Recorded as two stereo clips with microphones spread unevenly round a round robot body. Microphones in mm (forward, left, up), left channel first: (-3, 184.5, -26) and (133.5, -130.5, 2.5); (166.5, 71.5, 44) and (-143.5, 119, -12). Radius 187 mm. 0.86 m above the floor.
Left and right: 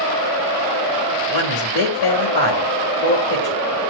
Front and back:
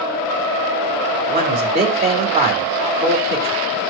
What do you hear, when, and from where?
1.3 s a man speaking: 100° left, 3.5 m